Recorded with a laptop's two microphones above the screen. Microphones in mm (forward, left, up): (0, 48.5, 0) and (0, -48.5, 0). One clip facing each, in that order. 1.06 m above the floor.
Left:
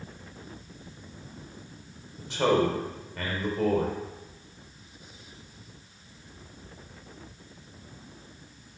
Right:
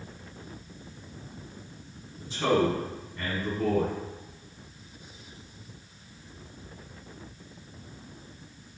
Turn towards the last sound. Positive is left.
turn(degrees=85)